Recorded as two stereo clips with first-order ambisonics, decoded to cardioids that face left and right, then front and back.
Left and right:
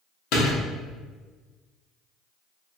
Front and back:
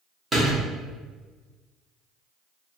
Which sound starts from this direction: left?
A door slam, at 0.3 s.